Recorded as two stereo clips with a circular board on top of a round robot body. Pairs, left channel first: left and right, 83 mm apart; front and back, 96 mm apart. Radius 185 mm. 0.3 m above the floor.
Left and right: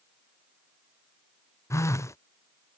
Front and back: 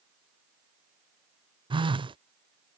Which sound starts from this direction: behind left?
A phone buzzing, at 1.7 s.